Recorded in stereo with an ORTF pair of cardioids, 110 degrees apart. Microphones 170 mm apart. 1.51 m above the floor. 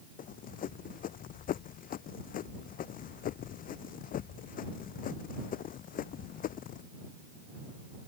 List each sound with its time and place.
0.2 s running footsteps: 60° left